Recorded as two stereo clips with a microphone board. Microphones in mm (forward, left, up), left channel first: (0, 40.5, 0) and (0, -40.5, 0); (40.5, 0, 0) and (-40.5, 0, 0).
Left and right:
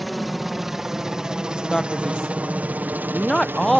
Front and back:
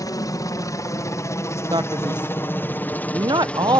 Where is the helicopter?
Straight ahead; by 3.8 s 65° right.